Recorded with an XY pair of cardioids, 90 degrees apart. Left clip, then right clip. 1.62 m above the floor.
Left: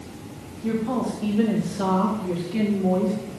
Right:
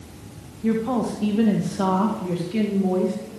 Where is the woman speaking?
50° right, 2.5 m; by 3.2 s 15° right, 2.5 m.